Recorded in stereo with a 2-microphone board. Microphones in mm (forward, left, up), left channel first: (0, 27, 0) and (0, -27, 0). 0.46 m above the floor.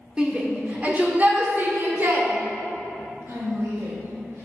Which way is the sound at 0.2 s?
20° right (ahead or behind).